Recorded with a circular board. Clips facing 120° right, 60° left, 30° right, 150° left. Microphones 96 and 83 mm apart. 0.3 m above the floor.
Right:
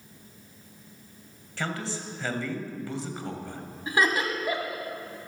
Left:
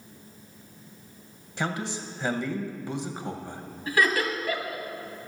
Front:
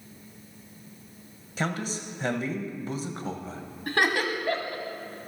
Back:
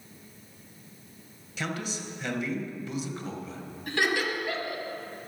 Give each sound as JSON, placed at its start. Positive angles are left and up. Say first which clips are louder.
{"t": 1.6, "sound": "a man speaking", "louder": "left 2 dB, front 3 dB", "azimuth_deg": -5, "distance_m": 1.2}
{"t": 3.9, "sound": "laughter", "louder": "left 1 dB, front 2 dB", "azimuth_deg": -55, "distance_m": 1.8}